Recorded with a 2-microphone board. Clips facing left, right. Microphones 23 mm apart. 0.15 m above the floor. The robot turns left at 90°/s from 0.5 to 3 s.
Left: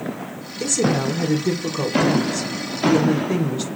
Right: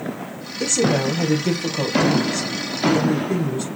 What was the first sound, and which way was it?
A woman speaking, 20° right.